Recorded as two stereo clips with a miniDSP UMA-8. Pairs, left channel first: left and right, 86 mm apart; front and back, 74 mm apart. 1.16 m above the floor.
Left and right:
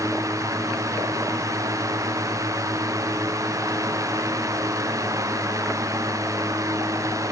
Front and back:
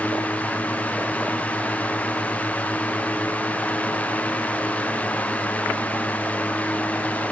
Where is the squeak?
No squeak in this recording.